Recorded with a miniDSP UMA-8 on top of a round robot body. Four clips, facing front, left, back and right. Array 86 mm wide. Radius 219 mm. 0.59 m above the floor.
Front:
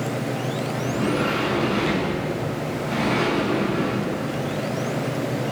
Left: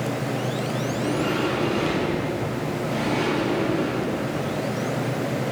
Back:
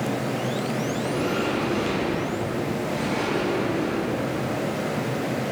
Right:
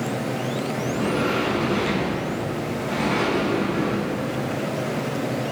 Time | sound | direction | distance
0.8 | a sliding door | 45° right | 6.5 m